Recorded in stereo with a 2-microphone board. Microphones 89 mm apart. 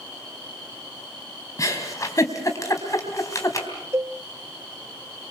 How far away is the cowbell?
About 0.8 m.